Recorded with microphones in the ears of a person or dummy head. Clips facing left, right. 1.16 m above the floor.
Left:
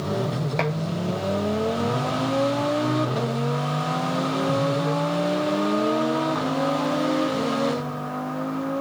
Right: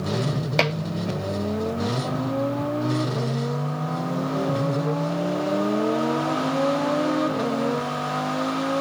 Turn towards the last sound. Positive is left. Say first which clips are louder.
# right 3 dB
turn(degrees=-45)  # may be behind; listen again after turning